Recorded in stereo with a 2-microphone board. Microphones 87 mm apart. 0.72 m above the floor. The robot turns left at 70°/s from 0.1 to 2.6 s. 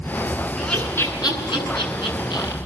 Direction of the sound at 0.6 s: Centre (ahead or behind).